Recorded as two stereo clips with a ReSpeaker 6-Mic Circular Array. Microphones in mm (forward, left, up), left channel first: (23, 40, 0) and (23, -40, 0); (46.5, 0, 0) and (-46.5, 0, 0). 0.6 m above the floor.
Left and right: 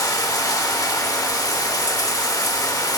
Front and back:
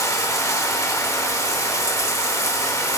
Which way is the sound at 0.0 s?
50° left.